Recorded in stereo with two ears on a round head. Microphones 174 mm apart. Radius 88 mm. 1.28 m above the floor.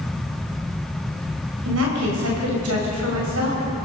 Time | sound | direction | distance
1.6 | a woman speaking | 75° right (ahead or behind) | 6.5 m